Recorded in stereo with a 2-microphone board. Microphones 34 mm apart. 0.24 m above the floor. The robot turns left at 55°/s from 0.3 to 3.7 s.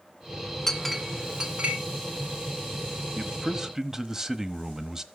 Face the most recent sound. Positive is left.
turn(degrees=-20)  # may be behind; listen again after turning